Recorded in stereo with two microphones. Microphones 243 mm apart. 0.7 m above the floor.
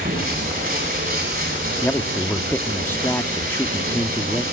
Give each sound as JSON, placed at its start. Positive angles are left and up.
{"t": 0.0, "sound": "running water", "side_deg": -40, "distance_m": 9.5}
{"t": 1.8, "sound": "a man speaking", "side_deg": 10, "distance_m": 1.1}